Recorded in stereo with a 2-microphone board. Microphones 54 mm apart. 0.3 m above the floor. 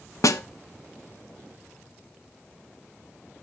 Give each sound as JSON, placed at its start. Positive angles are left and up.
{"t": 0.2, "sound": "a snare drum", "side_deg": 80, "distance_m": 0.5}